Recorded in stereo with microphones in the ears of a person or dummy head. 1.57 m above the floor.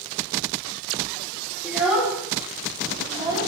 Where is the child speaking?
5° right (ahead or behind), 4 m; by 3.5 s 20° right (ahead or behind), 3.5 m.